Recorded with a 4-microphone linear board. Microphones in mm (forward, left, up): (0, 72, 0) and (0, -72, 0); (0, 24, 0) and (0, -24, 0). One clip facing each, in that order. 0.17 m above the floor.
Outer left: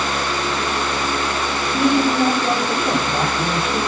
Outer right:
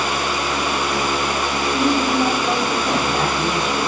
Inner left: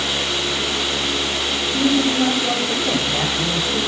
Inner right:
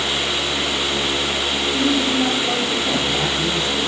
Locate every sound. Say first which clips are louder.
1.7 s a man speaking: outer left 2 dB, inner left 2 dB; 5° left (ahead or behind), 7.5 m